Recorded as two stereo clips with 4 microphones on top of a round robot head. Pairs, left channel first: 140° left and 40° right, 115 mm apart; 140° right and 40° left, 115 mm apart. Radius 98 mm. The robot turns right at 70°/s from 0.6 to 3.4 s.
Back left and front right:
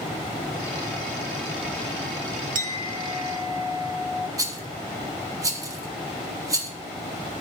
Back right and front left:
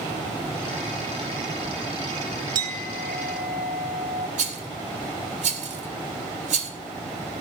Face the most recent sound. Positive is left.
turn(degrees=25)